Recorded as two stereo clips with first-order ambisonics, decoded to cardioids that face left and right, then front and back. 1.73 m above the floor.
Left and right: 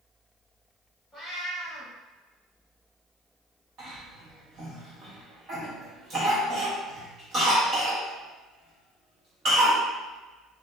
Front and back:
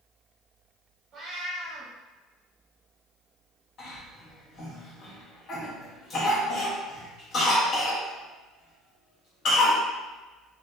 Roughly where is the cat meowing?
Behind left.